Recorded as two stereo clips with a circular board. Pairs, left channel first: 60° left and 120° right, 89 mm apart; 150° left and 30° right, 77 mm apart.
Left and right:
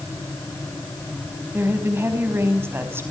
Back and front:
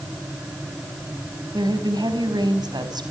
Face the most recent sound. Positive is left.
turn(degrees=-55)